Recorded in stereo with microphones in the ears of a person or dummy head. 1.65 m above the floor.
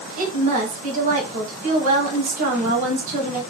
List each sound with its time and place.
0.2 s a woman speaking: 45° right (ahead or behind), 1.5 m